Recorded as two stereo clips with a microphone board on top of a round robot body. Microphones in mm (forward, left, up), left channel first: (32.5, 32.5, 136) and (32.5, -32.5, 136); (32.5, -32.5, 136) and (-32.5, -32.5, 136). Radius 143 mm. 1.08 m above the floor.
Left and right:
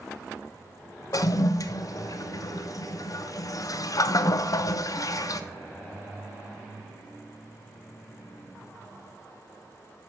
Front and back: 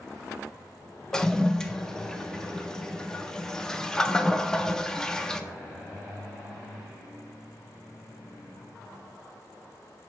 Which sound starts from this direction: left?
A toilet flushing, at 1.1 s.